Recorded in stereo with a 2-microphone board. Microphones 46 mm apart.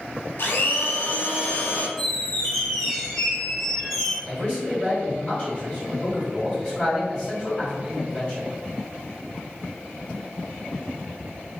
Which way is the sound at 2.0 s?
10° left (ahead or behind).